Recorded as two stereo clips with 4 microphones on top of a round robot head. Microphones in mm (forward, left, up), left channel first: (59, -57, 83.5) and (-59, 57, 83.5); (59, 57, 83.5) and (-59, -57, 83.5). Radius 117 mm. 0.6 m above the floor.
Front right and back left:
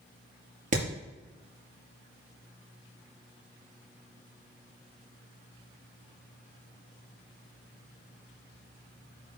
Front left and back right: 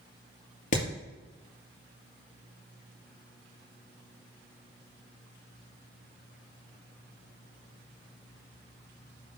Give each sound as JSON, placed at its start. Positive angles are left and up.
{"t": 0.7, "sound": "hammering", "azimuth_deg": 90, "distance_m": 4.5}